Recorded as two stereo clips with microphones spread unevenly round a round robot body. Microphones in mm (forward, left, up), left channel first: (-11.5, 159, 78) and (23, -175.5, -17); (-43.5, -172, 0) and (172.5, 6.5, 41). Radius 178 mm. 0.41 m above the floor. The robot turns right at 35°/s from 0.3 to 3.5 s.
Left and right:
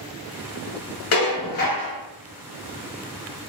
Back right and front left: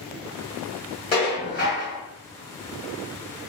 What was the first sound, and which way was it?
Dishes clattering, 150° left.